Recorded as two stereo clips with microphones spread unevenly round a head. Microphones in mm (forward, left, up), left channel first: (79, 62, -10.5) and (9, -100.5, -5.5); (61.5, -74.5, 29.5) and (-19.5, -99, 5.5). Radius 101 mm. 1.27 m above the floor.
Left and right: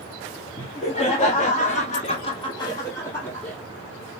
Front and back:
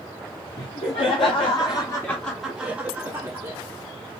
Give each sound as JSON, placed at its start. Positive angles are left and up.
{"t": 0.6, "sound": "laughter", "azimuth_deg": 15, "distance_m": 1.0}